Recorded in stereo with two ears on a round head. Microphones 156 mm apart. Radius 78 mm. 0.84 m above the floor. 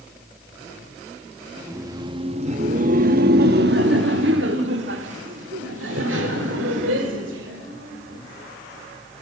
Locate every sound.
1.6 s laughter: 15° right (ahead or behind), 1.1 m; by 8.2 s 75° right (ahead or behind), 3.5 m